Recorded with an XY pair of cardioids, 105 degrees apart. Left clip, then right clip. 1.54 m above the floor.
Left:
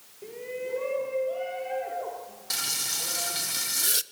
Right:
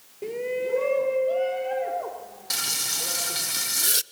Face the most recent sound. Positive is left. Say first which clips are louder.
# right 3 dB
turn(degrees=-15)